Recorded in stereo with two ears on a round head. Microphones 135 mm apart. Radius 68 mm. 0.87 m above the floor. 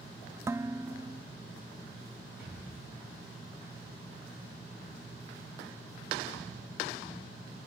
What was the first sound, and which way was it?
Dishes clattering, 20° right (ahead or behind).